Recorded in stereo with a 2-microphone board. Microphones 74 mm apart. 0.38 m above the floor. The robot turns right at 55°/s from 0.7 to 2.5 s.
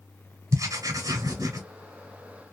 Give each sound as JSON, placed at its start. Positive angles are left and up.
{"t": 0.5, "sound": "writing", "azimuth_deg": -115, "distance_m": 1.4}